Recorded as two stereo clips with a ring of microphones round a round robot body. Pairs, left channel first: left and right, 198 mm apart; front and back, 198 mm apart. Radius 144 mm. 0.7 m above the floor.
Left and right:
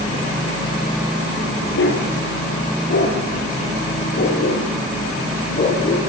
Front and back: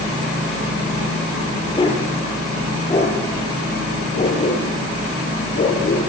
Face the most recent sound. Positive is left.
turn(degrees=45)